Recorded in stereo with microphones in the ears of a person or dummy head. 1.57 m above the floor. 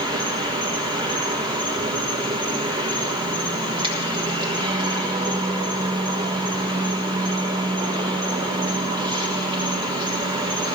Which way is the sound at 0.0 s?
30° right (ahead or behind).